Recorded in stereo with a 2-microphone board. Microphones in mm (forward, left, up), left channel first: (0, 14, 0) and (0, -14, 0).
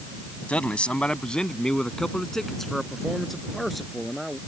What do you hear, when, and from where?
0.5 s a man speaking: 50° left (ahead or behind); by 4.4 s centre (ahead or behind)